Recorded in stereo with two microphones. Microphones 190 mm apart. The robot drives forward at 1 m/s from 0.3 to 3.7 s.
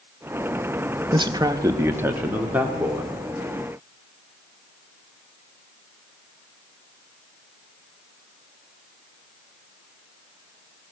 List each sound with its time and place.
1.1 s a man speaking: 25° right (ahead or behind), 0.8 m; by 3.1 s 10° right (ahead or behind), 2.5 m